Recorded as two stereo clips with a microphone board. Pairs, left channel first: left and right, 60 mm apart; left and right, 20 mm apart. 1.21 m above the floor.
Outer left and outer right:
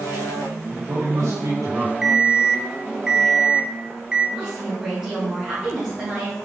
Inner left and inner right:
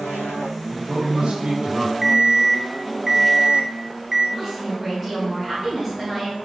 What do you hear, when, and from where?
0.7 s a man speaking: 85° right, 2 m
2.0 s an alarm clock: 15° right (ahead or behind), 0.6 m
4.4 s a woman speaking: 15° right (ahead or behind), 2.5 m